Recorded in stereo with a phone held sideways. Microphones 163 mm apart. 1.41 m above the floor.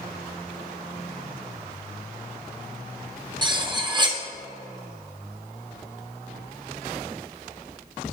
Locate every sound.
3.4 s cutlery clinking: 25° right (ahead or behind), 0.6 m